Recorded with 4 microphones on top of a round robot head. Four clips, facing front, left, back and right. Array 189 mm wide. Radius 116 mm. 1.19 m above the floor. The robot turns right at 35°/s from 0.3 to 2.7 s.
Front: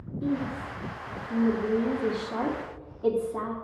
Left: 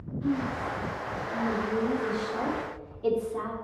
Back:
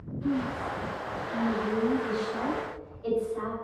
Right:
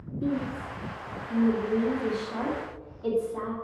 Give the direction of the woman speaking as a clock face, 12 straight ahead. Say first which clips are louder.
Left 1 dB, even; 2 o'clock.